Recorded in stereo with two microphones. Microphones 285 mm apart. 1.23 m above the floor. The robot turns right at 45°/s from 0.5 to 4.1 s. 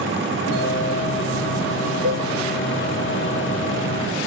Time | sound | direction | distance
2.0 | a cowbell | 80° right | 1.8 m